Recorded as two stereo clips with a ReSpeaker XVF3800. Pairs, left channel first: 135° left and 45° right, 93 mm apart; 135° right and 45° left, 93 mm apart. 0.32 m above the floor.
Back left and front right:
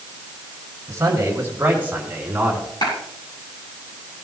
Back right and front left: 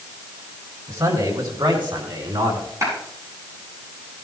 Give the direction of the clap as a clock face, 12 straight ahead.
9 o'clock.